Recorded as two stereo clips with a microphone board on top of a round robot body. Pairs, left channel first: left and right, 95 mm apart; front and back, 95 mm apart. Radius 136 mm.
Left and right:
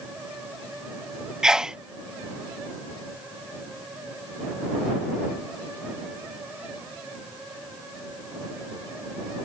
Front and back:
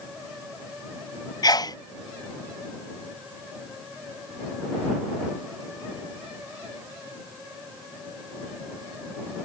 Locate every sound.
1.4 s a sneeze: 10° right